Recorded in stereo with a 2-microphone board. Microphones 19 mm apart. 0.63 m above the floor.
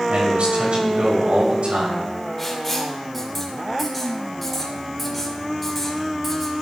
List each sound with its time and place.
0.1 s a man speaking: 70° right (ahead or behind), 4 m
2.4 s writing: 10° left (ahead or behind), 2.5 m